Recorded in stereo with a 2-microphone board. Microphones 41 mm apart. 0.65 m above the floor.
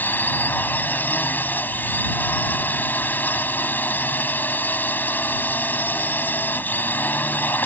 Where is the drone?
50° left (ahead or behind).